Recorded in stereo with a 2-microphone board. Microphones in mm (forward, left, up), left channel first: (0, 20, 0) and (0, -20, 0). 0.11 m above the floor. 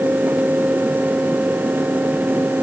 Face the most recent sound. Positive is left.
No sound to turn to.